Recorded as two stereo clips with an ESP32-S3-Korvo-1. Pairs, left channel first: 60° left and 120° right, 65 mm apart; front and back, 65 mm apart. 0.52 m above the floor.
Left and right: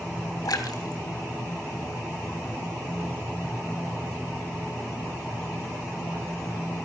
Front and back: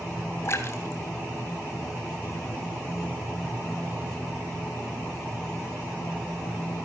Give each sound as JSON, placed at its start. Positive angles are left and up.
{"t": 0.5, "sound": "a splash", "azimuth_deg": 45, "distance_m": 3.0}